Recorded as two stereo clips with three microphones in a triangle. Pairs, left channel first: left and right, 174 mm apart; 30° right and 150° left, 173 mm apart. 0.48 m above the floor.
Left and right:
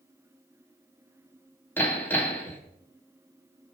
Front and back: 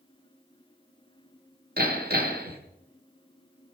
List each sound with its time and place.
1.8 s hammering: 170° left, 3.5 m